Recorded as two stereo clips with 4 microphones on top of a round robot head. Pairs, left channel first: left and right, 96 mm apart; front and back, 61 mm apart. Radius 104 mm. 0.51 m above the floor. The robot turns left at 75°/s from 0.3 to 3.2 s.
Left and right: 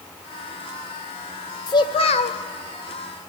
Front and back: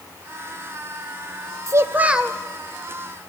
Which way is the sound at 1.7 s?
145° left.